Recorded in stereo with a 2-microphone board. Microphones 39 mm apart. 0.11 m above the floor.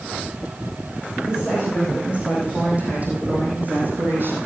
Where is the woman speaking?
20° right (ahead or behind), 6 m; by 4.4 s 60° right (ahead or behind), 4 m.